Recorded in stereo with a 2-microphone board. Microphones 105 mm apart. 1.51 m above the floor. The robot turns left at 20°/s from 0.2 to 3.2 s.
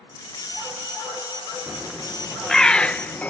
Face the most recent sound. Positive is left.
turn(degrees=160)